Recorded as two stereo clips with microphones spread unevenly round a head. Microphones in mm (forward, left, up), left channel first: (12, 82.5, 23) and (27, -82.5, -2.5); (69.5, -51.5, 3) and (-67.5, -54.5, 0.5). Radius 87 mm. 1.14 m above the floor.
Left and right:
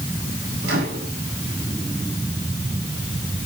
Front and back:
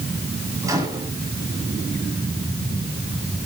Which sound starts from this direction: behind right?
A microwave, at 0.6 s.